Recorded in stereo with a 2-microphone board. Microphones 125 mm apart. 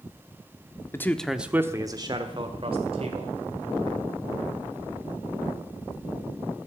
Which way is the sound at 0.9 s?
20° left (ahead or behind).